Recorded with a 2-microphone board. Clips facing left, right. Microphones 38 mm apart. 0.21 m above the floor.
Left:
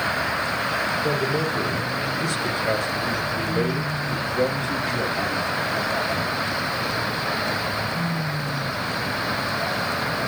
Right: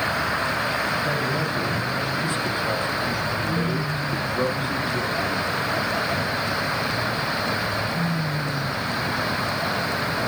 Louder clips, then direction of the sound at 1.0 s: Left 1 dB; 65° left (ahead or behind).